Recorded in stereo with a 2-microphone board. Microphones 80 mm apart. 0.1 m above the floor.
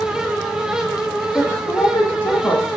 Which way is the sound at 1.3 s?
25° left (ahead or behind).